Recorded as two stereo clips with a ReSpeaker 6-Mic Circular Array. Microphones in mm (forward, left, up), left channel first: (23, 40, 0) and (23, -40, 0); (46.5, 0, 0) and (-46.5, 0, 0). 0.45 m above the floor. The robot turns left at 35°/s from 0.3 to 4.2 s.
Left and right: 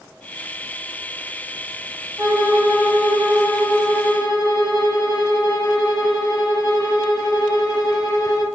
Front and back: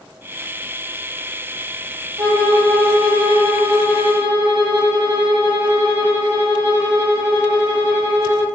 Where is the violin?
145° right, 0.8 m; by 8.4 s 140° left, 0.8 m.